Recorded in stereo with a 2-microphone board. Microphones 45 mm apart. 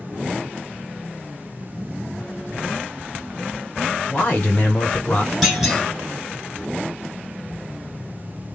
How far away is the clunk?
About 1.2 m.